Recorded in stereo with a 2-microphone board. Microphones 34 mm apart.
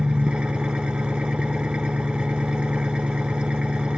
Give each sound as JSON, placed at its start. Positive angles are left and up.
{"t": 0.0, "sound": "an engine running", "side_deg": -35, "distance_m": 1.1}